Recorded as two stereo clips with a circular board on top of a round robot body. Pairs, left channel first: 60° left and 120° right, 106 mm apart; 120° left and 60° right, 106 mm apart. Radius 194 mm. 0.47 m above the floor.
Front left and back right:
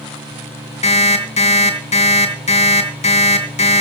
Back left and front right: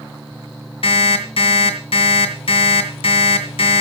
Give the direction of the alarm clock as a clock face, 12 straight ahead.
9 o'clock.